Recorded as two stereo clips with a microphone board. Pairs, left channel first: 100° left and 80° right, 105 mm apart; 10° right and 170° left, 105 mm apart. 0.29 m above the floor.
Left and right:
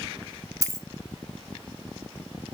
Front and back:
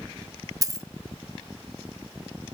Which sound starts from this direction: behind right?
A dropped coin, at 0.6 s.